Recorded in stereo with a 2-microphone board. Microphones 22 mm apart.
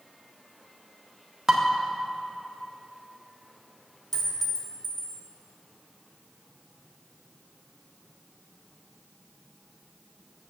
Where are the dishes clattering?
10° right (ahead or behind), 1.0 m.